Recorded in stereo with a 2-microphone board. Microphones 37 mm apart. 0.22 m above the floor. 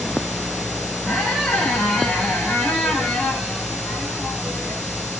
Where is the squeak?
35° left (ahead or behind), 4.5 m.